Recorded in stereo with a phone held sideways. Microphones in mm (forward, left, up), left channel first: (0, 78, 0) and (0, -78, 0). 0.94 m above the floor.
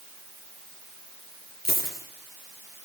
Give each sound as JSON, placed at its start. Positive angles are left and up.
{"t": 1.6, "sound": "a dropped coin", "side_deg": 75, "distance_m": 8.0}